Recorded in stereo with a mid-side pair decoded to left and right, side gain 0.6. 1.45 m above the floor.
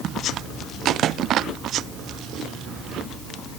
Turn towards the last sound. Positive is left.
No sound to turn to.